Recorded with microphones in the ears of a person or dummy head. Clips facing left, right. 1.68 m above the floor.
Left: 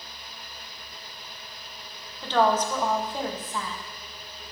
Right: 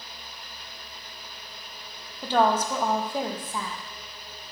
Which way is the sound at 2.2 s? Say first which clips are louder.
Even; 15° right (ahead or behind).